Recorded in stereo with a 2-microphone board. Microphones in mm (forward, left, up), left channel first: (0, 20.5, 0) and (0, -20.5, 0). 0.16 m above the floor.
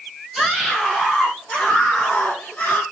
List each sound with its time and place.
0.3 s a scream: centre (ahead or behind), 5 m; by 2.8 s 45° left (ahead or behind), 4.5 m